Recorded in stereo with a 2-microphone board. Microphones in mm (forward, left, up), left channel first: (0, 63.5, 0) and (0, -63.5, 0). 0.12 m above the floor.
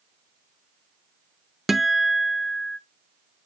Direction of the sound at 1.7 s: Centre (ahead or behind).